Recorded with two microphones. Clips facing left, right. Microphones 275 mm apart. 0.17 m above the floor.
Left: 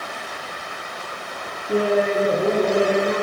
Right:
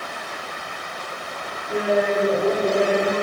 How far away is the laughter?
About 2 m.